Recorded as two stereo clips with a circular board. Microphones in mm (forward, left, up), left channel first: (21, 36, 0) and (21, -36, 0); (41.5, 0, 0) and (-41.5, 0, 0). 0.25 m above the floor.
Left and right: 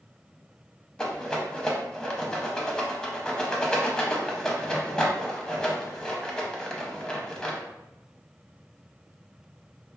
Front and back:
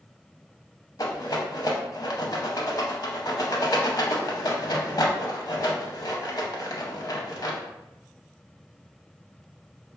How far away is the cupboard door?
No cupboard door in this recording.